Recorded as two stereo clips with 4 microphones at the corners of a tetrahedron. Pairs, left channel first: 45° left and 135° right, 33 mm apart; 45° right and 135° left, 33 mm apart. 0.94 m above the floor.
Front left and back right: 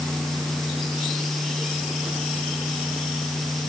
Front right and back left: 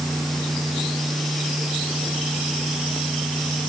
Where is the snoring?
I don't hear snoring.